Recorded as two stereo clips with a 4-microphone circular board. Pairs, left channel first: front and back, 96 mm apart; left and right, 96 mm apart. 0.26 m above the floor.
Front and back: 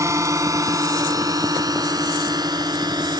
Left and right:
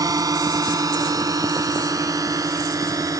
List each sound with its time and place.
0.0 s a drone: 130° right; by 3.2 s 140° right